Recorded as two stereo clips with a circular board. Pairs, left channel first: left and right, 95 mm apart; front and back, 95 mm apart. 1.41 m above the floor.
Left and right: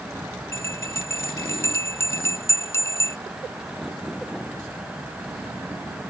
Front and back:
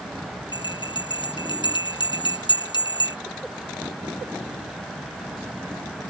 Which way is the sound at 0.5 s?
30° left.